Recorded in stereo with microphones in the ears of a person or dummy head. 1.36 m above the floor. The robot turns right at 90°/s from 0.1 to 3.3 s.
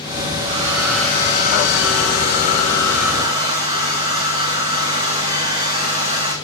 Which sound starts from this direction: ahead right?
A hair dryer, at 0.4 s.